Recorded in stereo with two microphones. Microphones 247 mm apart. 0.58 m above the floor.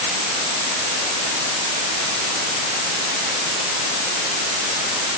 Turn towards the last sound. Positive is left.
No sound to turn to.